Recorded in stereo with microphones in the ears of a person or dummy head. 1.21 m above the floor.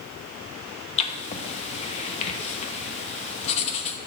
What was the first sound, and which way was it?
Writing, 40° left (ahead or behind).